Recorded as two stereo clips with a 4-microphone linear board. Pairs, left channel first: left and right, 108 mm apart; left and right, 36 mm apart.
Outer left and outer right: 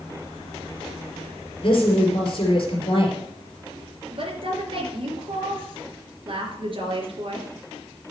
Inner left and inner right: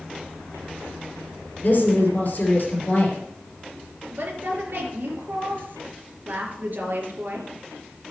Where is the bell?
I don't hear a bell.